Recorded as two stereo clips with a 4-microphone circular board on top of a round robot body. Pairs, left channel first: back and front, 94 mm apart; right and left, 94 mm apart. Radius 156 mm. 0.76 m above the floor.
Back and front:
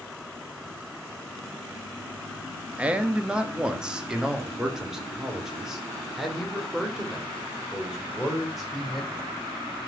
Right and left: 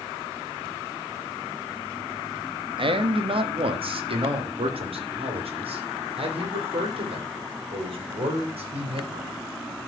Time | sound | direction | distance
2.8 | a man speaking | 75° left | 1.5 m